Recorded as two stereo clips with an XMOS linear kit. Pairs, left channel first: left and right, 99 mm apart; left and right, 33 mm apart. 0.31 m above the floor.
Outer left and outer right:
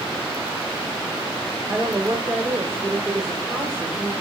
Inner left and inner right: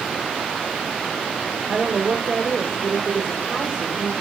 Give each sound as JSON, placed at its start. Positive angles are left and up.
{"t": 1.7, "sound": "a woman speaking", "side_deg": -20, "distance_m": 1.5}